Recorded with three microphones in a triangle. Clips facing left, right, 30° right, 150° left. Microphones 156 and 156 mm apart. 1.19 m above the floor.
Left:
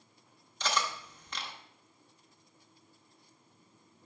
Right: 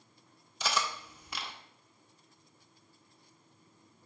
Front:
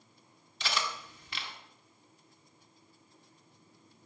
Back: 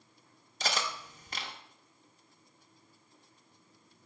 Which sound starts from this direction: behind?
Cutlery clinking, at 0.6 s.